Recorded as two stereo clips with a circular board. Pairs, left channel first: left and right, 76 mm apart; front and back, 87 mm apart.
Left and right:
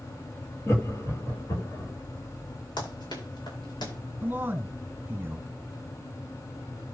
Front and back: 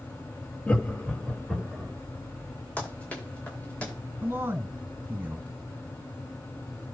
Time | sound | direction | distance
0.7 | laughter | 60° left | 1.4 m
2.8 | running footsteps | 75° left | 9 m
4.2 | a man speaking | 135° right | 1.4 m